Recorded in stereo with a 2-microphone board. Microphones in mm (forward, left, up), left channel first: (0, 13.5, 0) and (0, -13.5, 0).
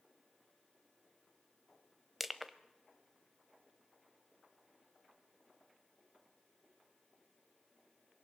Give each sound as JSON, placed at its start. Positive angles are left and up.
{"t": 2.2, "sound": "crushing", "side_deg": -5, "distance_m": 0.8}